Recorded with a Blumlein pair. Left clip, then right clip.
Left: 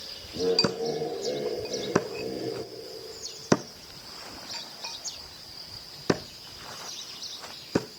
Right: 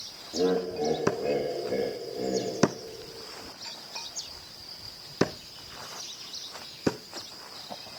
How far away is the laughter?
About 3.5 m.